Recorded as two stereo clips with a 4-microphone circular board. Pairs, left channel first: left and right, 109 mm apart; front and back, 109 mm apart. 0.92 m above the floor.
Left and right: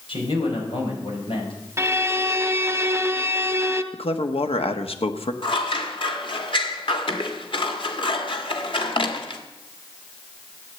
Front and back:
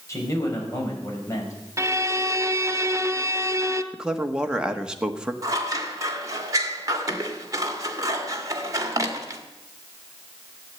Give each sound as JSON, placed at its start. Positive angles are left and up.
{"t": 0.1, "sound": "a man speaking", "azimuth_deg": 60, "distance_m": 5.0}
{"t": 1.8, "sound": "a violin", "azimuth_deg": -140, "distance_m": 0.9}
{"t": 3.9, "sound": "a man speaking", "azimuth_deg": 100, "distance_m": 1.4}
{"t": 5.4, "sound": "scissors", "azimuth_deg": 125, "distance_m": 1.7}